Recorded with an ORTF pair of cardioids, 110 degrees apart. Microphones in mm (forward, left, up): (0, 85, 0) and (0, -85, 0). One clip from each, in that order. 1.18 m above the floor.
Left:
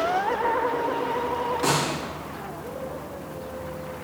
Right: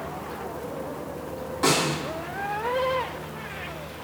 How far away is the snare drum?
About 3.5 m.